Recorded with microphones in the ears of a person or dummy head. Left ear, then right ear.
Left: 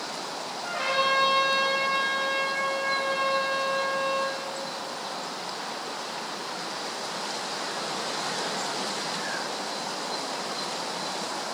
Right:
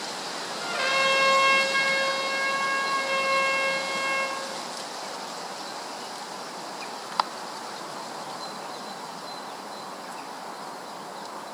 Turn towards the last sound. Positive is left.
turn(degrees=-70)  # may be behind; listen again after turning